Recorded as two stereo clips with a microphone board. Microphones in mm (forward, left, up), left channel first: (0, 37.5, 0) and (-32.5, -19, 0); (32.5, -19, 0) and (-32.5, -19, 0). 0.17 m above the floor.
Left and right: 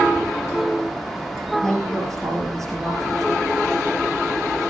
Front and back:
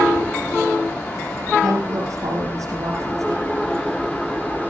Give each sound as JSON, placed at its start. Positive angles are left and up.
{"t": 1.6, "sound": "a woman speaking", "azimuth_deg": 145, "distance_m": 4.5}